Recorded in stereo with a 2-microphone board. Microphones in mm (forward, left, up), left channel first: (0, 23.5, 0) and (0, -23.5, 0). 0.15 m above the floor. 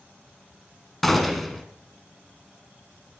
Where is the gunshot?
5° left (ahead or behind), 1.8 m.